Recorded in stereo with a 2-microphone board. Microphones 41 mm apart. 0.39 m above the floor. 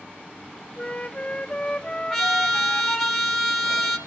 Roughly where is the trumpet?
Centre.